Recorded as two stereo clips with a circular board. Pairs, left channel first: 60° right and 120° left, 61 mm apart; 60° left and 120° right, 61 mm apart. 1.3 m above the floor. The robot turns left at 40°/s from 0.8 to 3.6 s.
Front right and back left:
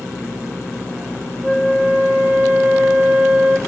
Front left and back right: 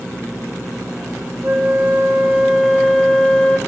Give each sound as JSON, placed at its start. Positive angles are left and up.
{"t": 1.4, "sound": "a flute", "azimuth_deg": -155, "distance_m": 0.6}